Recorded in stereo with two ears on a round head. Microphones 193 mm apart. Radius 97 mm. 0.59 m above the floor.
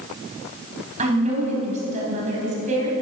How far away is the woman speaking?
About 4 m.